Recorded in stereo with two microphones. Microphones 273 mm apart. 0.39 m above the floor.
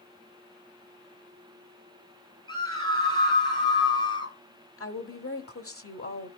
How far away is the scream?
About 10 m.